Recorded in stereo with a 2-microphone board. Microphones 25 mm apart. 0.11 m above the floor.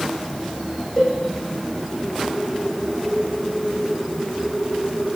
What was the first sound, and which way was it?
A cowbell, 20° left (ahead or behind).